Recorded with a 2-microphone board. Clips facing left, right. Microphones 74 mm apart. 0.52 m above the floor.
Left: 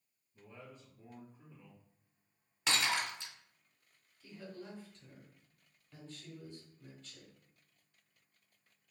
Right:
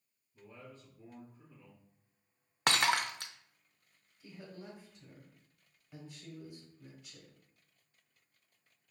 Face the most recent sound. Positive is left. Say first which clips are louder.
# left 1 dB
turn(degrees=-15)  # may be behind; listen again after turning